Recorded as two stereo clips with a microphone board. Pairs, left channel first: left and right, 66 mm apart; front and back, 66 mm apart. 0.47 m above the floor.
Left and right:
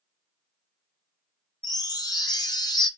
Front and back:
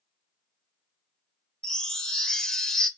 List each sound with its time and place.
1.6 s a chime: 80° left, 0.5 m